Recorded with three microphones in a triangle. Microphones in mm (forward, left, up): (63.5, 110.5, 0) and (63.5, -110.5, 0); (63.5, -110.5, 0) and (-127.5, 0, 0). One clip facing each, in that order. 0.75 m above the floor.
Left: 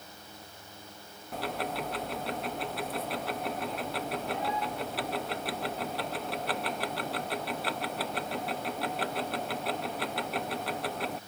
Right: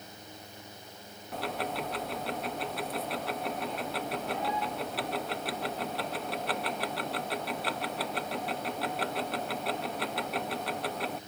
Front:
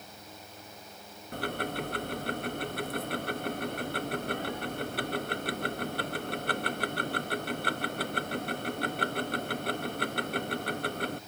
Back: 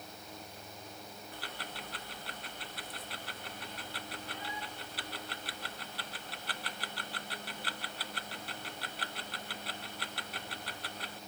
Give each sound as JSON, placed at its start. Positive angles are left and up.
{"t": 1.3, "sound": "ticking", "azimuth_deg": 0}